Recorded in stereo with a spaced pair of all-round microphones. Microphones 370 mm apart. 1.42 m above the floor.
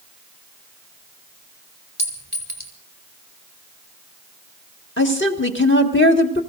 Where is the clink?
25° left (ahead or behind), 3 m.